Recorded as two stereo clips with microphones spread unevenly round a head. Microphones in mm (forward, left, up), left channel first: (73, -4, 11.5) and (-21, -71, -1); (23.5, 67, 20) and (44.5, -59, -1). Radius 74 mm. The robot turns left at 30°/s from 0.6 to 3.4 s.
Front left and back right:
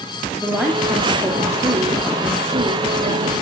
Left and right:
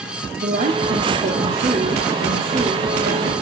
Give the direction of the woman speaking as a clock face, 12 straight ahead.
2 o'clock.